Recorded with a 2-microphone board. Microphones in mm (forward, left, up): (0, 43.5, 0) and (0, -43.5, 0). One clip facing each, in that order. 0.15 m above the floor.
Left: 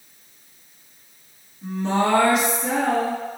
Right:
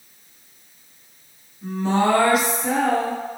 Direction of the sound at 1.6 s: 5° right (ahead or behind).